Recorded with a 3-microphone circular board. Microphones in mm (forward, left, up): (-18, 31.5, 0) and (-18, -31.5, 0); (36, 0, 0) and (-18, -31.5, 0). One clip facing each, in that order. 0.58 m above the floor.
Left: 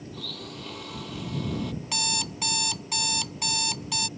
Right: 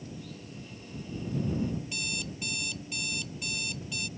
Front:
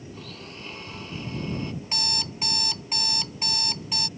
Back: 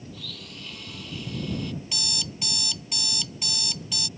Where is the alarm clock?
80° left.